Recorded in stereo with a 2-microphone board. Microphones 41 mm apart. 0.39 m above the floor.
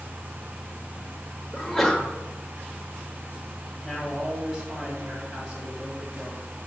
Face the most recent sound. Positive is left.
turn(degrees=-20)  # may be behind; listen again after turning